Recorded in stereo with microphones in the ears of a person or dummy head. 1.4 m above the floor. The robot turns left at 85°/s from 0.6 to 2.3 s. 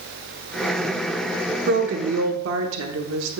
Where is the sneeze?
I don't hear a sneeze.